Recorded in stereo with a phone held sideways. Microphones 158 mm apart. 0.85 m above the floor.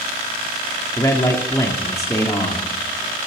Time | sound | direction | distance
1.0 | a man speaking | 20° left (ahead or behind) | 2 m